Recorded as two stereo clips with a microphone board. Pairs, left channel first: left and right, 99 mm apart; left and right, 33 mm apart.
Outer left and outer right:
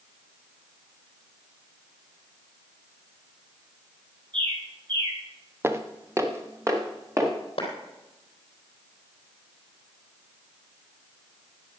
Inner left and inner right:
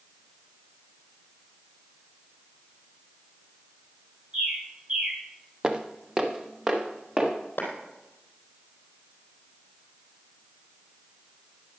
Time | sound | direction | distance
4.3 | a bird | 45° right (ahead or behind) | 5 m
5.6 | footsteps | 25° right (ahead or behind) | 1.5 m
7.6 | a clap | 55° left (ahead or behind) | 3.5 m